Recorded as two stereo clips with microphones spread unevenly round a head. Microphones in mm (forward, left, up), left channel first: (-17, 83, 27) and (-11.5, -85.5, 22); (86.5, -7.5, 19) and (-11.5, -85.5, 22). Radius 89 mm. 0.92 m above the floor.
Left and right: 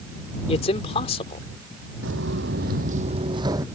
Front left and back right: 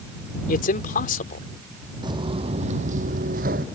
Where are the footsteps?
90° right; by 3.6 s 160° right.